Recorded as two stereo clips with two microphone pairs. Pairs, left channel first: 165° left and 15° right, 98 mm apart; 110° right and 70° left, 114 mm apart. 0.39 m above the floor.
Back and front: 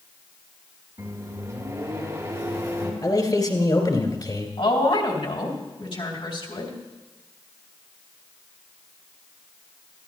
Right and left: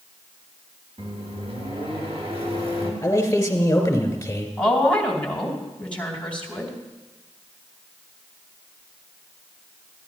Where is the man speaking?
175° right, 2.5 m.